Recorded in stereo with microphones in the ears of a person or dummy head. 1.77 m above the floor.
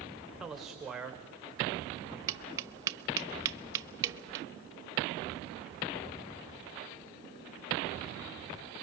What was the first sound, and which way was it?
A man speaking, centre (ahead or behind).